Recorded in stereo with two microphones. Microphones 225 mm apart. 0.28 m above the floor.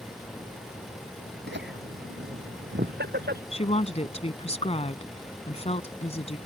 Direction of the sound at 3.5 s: 30° left (ahead or behind).